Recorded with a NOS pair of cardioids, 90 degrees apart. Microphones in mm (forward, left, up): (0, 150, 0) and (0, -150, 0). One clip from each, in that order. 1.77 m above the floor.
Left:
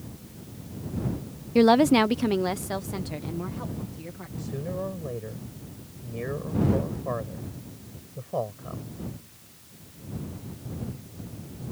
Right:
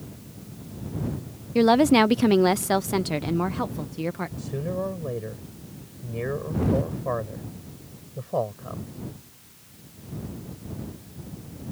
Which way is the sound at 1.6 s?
10° left.